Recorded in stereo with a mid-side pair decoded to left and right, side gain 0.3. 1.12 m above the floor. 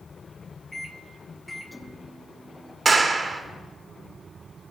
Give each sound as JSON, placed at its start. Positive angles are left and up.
{"t": 0.7, "sound": "a microwave", "azimuth_deg": 20, "distance_m": 1.1}
{"t": 2.9, "sound": "a clap", "azimuth_deg": -45, "distance_m": 1.7}